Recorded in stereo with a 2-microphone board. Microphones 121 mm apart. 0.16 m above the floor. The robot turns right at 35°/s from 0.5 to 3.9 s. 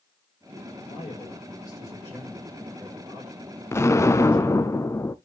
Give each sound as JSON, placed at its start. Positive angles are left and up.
{"t": 0.8, "sound": "a man speaking", "azimuth_deg": 120, "distance_m": 6.5}
{"t": 3.7, "sound": "an explosion", "side_deg": 20, "distance_m": 0.7}